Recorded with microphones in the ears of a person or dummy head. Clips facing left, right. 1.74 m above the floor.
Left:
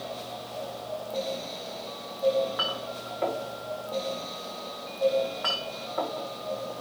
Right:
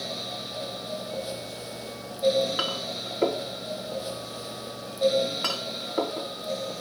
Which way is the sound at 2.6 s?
45° right (ahead or behind).